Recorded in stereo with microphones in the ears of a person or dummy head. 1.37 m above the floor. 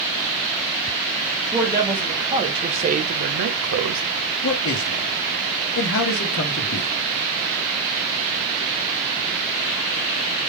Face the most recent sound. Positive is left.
turn(degrees=70)  # may be behind; listen again after turning